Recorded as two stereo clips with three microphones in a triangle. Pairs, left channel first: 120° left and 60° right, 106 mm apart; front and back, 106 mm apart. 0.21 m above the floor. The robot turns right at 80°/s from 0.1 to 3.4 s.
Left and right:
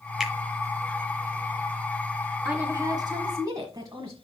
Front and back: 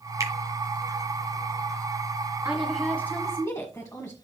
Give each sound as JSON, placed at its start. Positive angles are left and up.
{"t": 0.2, "sound": "a finger snap", "azimuth_deg": -145, "distance_m": 1.8}
{"t": 2.5, "sound": "a woman speaking", "azimuth_deg": -115, "distance_m": 1.5}